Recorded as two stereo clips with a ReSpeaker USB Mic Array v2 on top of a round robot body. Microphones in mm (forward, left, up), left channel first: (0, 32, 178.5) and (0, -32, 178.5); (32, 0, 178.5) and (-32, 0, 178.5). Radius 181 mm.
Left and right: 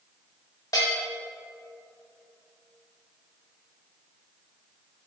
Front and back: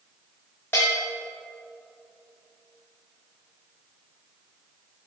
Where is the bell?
60° left, 0.7 m.